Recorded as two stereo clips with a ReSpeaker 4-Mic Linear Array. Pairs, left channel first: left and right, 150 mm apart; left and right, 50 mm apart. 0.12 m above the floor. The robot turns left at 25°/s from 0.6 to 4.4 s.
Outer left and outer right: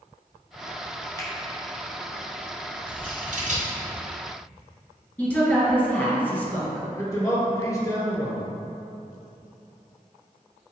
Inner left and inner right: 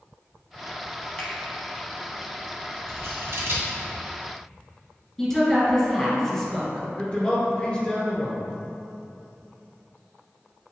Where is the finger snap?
25° left (ahead or behind), 1.1 m; by 1.3 s 20° left (ahead or behind), 1.1 m.